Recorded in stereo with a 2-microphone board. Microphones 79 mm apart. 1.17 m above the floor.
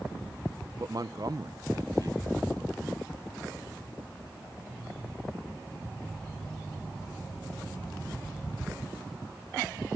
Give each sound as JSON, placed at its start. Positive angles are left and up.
{"t": 0.8, "sound": "a man speaking", "side_deg": -50, "distance_m": 0.7}